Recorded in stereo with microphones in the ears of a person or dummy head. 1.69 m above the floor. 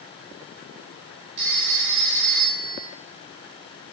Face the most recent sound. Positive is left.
turn(degrees=-65)  # may be behind; listen again after turning